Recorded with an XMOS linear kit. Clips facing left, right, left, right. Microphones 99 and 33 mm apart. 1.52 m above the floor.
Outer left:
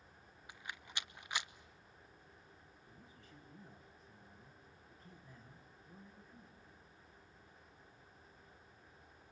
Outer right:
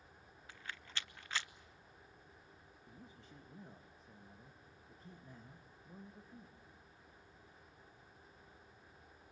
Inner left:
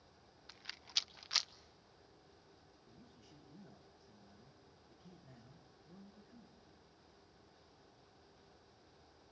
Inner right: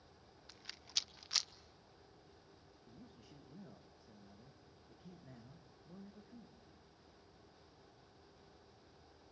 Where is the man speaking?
30° right (ahead or behind), 1.8 m.